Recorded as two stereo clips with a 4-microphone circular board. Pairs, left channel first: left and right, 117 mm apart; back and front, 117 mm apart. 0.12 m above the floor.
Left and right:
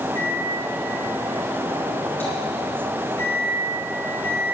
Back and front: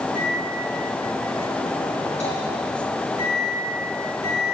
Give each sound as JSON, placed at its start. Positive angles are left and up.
{"t": 0.1, "sound": "a microwave", "azimuth_deg": 160, "distance_m": 4.0}